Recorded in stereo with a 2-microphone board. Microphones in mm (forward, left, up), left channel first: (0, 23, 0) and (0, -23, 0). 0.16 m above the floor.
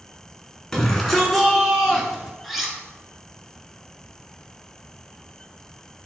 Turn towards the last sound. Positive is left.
turn(degrees=0)  # may be behind; listen again after turning